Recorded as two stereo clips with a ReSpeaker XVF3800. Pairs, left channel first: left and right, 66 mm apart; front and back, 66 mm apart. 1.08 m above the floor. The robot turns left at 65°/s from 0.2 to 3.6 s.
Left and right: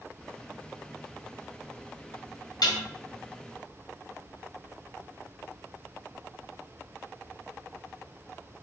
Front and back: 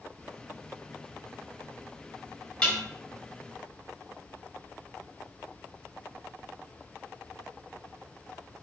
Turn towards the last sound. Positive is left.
turn(degrees=10)